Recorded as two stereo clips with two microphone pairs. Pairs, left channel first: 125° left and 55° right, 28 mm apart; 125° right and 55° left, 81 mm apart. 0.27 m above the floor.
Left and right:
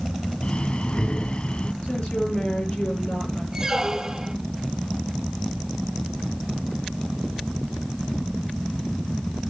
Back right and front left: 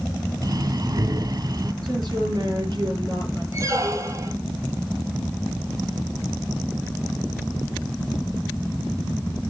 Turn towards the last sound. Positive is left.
turn(degrees=10)